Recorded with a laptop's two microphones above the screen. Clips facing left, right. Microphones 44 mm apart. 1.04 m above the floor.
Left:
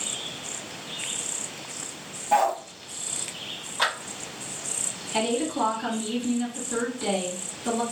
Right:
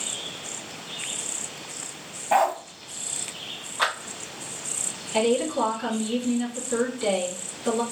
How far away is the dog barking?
About 0.5 m.